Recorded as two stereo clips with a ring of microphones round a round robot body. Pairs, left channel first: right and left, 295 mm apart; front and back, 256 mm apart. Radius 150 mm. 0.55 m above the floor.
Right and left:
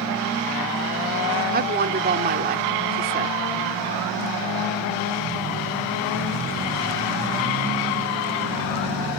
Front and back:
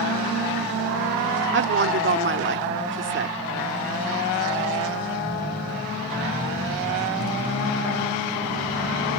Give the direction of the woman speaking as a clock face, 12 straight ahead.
7 o'clock.